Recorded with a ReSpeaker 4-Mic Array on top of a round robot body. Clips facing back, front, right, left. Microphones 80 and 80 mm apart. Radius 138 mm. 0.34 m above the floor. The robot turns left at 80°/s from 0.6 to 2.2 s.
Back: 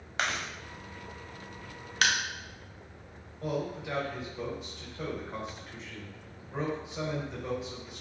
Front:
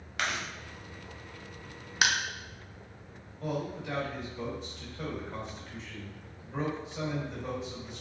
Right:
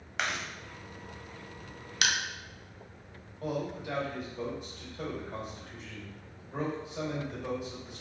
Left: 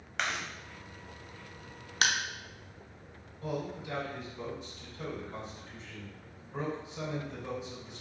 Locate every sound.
0.2 s chewing: 175° right, 1.0 m
2.0 s crushing: 70° left, 0.5 m; by 2.1 s 60° left, 0.5 m
3.4 s a man speaking: 100° right, 1.4 m